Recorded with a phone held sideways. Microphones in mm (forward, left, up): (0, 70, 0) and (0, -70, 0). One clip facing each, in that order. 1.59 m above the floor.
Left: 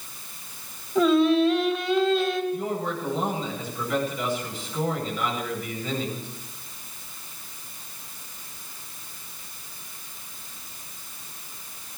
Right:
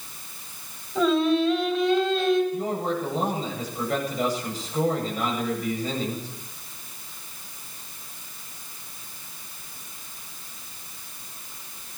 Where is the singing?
Centre (ahead or behind), 3 m.